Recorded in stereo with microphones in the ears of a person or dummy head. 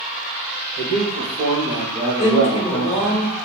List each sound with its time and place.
0.8 s a man speaking: 65° right (ahead or behind), 1.1 m; by 3.2 s 5° left (ahead or behind), 1.2 m
2.2 s a woman speaking: 35° left (ahead or behind), 1.0 m